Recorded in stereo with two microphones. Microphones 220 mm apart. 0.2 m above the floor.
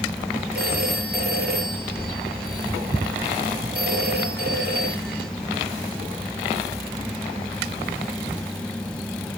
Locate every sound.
0.6 s a phone ringing: 45° right (ahead or behind), 3.5 m